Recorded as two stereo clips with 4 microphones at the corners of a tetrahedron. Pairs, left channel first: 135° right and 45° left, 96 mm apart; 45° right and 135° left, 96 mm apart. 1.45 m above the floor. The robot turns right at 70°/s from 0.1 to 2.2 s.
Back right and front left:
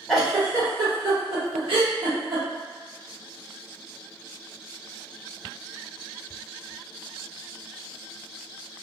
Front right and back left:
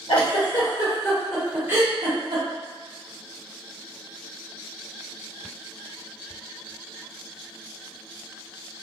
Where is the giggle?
45° right, 1.0 m; by 2.4 s 100° left, 1.0 m.